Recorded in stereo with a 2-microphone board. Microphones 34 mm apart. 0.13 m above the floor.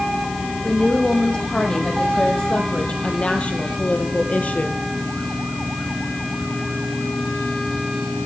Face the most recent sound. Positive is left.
turn(degrees=50)  # may be behind; listen again after turning